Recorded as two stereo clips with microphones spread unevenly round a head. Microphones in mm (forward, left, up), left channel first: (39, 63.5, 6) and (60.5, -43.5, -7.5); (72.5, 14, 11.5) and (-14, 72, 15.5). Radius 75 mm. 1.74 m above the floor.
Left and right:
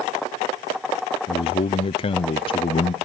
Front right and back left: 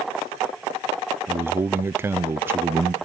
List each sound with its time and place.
1.3 s a man speaking: 80° left, 0.5 m